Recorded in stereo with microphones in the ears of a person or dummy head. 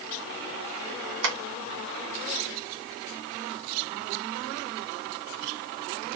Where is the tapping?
70° right (ahead or behind), 1.9 m.